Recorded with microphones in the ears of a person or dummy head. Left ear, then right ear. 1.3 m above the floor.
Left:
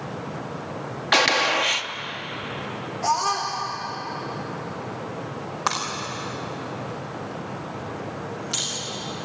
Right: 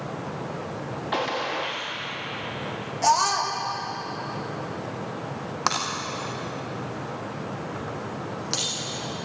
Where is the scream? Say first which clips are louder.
Right 2 dB; 70° right (ahead or behind), 2 m.